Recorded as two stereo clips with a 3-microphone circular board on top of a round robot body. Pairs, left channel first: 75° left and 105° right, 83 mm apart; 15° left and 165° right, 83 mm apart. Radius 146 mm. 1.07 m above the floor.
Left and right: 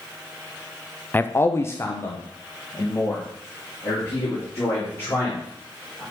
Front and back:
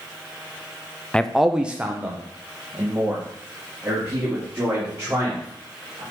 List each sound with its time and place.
1.1 s a man speaking: 70° left, 0.7 m; by 6.0 s 135° left, 5 m